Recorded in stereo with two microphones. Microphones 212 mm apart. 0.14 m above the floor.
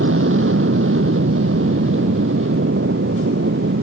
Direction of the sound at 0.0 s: 70° right (ahead or behind).